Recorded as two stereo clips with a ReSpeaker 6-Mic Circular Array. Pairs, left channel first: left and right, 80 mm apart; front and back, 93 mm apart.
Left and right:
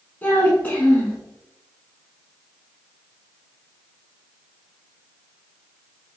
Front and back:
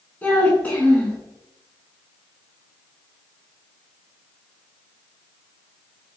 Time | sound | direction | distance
0.2 | a child speaking | 50° left | 0.6 m